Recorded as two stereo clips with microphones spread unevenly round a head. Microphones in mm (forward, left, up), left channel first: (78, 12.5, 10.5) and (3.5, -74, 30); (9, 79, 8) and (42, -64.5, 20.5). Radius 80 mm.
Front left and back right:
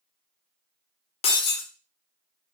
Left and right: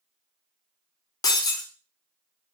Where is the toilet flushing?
No toilet flushing in this recording.